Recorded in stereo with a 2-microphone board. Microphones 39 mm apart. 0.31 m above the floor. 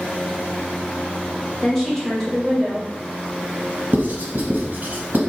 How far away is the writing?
About 0.9 m.